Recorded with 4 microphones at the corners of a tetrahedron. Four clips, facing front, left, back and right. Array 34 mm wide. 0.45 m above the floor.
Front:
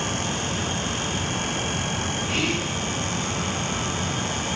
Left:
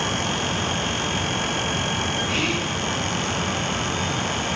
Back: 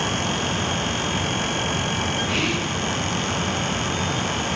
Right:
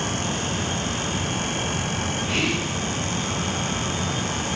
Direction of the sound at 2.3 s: 140° right.